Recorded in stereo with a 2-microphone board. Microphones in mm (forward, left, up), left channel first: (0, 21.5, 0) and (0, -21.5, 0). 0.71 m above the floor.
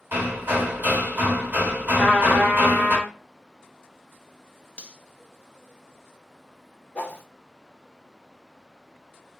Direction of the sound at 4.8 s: 25° left (ahead or behind).